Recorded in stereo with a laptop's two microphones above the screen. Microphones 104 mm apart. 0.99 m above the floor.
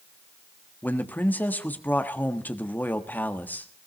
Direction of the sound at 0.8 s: 15° left (ahead or behind).